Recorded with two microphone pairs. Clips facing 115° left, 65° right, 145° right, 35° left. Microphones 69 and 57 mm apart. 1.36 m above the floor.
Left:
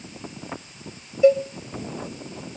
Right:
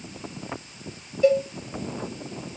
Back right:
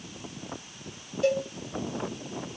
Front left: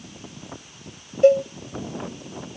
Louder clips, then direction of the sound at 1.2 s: Left 3 dB, front left 10 dB; 50° left.